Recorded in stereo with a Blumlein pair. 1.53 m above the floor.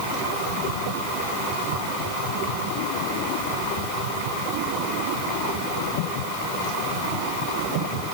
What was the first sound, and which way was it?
Only background noise.